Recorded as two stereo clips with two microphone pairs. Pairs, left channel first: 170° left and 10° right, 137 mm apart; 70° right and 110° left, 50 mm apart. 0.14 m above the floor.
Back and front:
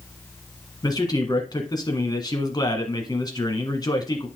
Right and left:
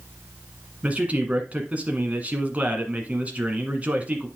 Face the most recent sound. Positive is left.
turn(degrees=140)